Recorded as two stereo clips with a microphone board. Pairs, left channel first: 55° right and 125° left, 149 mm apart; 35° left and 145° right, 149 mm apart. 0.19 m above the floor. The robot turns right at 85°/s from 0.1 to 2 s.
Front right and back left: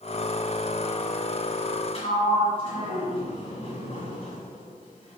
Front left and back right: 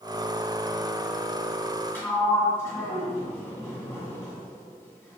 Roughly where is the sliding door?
Ahead right.